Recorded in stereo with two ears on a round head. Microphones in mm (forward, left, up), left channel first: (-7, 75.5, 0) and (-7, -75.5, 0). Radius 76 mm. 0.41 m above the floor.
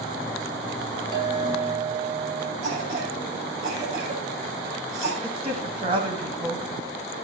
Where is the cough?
60° right (ahead or behind), 6 m.